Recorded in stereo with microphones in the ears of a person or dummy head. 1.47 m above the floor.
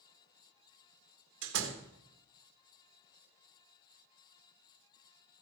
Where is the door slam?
70° right (ahead or behind), 1.8 m.